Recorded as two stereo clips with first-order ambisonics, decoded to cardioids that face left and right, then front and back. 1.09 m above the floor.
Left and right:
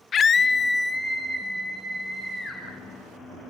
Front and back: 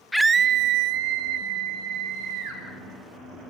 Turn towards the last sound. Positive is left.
turn(degrees=-175)